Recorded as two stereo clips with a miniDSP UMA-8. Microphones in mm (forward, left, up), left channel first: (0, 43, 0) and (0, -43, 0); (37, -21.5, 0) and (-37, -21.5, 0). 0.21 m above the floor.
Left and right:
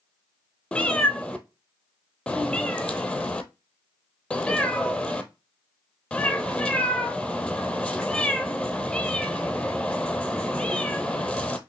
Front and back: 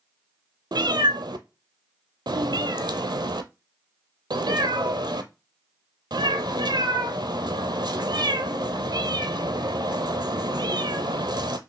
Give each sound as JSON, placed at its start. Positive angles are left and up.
{"t": 0.7, "sound": "a cat meowing", "azimuth_deg": 170, "distance_m": 0.6}